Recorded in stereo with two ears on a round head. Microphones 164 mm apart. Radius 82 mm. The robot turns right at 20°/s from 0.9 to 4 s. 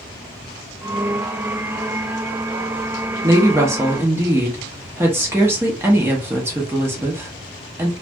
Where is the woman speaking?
15° right (ahead or behind), 0.8 m.